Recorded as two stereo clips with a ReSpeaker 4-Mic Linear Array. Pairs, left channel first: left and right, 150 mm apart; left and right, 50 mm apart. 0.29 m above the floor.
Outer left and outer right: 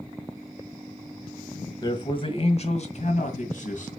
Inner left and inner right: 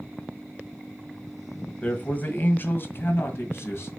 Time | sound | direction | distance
1.8 | a man speaking | 25° left (ahead or behind) | 1.6 m